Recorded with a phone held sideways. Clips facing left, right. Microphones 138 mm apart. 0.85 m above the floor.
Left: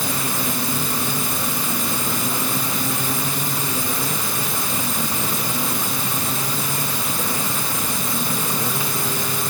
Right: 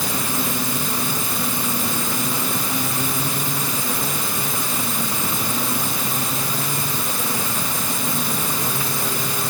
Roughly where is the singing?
I don't hear singing.